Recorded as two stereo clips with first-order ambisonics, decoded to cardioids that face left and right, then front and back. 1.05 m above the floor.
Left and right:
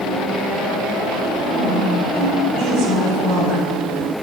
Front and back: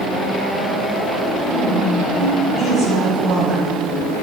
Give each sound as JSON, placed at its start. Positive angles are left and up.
{"t": 1.4, "sound": "a woman speaking", "azimuth_deg": -95, "distance_m": 4.0}